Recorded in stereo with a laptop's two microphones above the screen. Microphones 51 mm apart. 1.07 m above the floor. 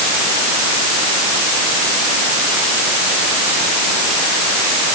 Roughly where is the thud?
I don't hear a thud.